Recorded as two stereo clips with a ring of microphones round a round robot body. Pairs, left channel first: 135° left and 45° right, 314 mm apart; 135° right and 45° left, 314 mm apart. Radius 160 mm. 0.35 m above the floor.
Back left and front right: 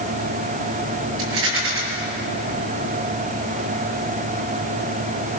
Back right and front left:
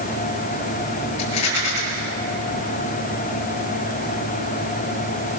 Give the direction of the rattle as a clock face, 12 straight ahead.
3 o'clock.